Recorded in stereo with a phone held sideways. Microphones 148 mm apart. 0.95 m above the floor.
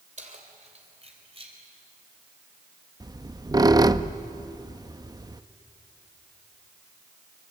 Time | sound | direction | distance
0.2 | keys jangling | 55° right (ahead or behind) | 3 m
3.0 | a squeak | 25° right (ahead or behind) | 0.6 m